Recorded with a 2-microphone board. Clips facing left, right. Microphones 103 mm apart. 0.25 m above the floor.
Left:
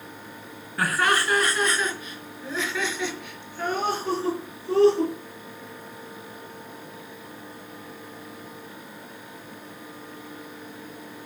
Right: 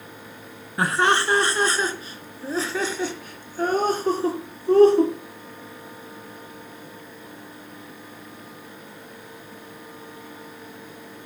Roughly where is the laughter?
Right.